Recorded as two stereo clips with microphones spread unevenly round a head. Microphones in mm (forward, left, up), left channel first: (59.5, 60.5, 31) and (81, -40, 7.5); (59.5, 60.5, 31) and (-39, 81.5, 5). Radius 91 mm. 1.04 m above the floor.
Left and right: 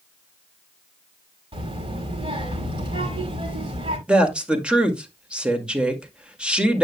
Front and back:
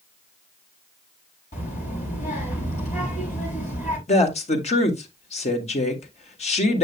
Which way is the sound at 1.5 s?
45° right.